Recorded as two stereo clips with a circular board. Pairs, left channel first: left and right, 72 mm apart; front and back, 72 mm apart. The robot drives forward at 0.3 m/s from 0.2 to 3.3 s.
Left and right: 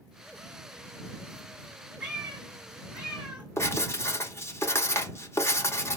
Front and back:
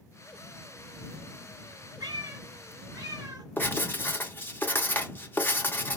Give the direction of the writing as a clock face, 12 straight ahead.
10 o'clock.